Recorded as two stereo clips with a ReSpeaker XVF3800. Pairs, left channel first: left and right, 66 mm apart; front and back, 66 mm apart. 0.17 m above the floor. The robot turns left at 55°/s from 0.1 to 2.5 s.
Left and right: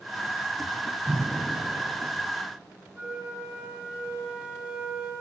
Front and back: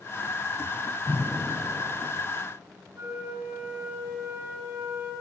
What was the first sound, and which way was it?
Breathing, 60° right.